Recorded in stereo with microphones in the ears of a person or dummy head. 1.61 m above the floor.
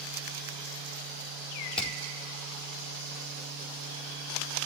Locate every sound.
1.8 s hammering: 10° left (ahead or behind), 4.5 m